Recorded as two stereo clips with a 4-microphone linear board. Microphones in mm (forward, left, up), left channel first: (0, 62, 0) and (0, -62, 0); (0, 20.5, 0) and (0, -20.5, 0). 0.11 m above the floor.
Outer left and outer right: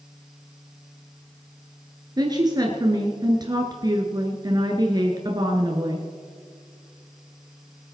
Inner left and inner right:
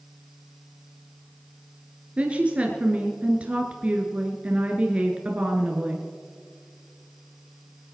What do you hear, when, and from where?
2.2 s a woman speaking: 35° right (ahead or behind), 1.5 m